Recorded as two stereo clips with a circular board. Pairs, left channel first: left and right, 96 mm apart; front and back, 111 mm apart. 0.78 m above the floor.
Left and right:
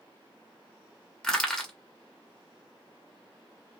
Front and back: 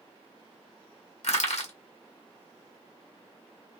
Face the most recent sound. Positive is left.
turn(degrees=10)